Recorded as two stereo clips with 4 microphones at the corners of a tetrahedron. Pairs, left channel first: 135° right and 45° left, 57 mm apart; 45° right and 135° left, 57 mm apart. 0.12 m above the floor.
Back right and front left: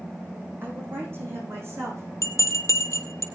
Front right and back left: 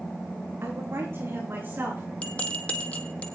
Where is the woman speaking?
95° left, 6 m; by 2.0 s 80° left, 7 m.